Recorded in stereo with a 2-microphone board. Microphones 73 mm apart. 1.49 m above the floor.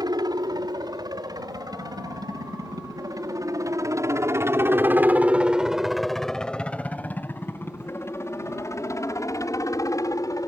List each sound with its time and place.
0.0 s a helicopter: 65° right (ahead or behind); by 10.5 s 50° left (ahead or behind)